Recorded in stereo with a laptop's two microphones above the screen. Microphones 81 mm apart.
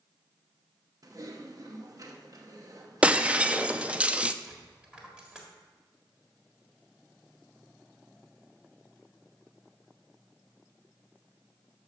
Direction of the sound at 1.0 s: 50° right (ahead or behind).